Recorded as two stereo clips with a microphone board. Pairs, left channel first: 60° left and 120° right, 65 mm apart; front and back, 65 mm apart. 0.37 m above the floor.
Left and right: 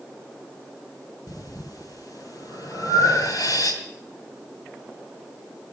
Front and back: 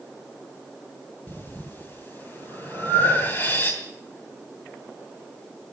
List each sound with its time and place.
1.3 s breathing: 55° left, 2.5 m